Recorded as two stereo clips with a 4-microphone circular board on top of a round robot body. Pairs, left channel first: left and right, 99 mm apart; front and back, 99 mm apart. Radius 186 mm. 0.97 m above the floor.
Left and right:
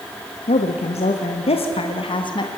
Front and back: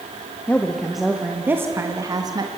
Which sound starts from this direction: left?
A woman speaking, at 0.5 s.